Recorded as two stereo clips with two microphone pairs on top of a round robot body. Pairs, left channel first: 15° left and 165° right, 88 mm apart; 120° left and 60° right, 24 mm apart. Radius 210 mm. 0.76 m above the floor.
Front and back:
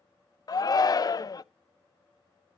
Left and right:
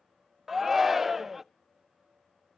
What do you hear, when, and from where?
0.5 s a shout: 25° left, 0.7 m